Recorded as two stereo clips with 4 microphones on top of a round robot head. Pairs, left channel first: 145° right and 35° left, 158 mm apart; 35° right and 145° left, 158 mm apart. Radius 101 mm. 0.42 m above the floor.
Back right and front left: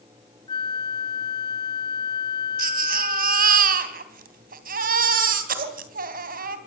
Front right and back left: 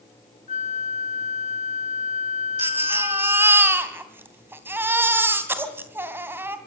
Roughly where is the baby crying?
Ahead left.